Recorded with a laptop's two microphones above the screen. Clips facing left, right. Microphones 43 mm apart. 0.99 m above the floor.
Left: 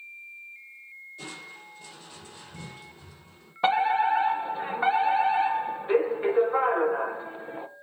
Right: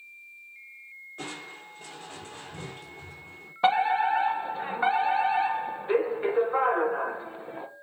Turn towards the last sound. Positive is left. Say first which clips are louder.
# even
turn(degrees=0)  # may be behind; listen again after turning